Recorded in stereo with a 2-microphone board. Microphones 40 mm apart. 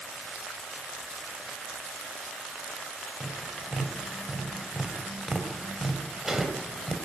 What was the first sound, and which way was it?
Tapping, 10° right (ahead or behind).